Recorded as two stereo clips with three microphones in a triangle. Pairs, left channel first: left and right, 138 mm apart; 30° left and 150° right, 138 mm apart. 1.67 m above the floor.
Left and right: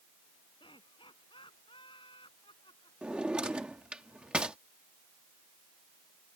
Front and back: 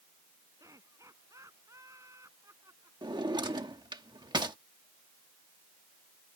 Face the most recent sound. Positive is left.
turn(degrees=-165)